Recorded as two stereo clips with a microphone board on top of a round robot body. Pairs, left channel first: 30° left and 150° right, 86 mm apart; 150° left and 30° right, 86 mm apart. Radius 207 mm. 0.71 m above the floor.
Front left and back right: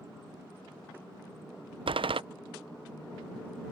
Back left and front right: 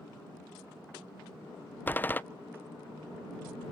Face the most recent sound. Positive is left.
turn(degrees=-140)